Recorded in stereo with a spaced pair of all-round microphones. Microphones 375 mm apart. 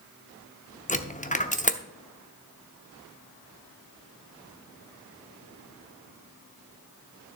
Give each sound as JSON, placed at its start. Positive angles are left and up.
{"t": 0.9, "sound": "a dropped coin", "side_deg": 20, "distance_m": 0.7}